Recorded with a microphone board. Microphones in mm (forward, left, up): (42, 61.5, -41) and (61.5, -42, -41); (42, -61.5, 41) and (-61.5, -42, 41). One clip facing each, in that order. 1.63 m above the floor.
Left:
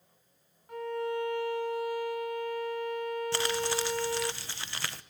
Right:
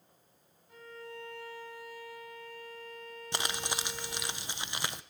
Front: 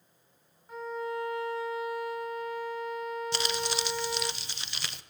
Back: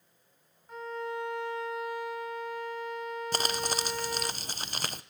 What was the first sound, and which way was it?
A violin, 75° left.